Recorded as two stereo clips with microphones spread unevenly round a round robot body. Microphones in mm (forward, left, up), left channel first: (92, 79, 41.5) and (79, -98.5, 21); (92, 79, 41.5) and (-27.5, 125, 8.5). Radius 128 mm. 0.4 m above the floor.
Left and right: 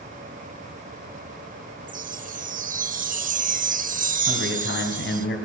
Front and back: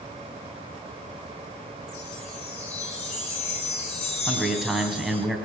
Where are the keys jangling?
No keys jangling in this recording.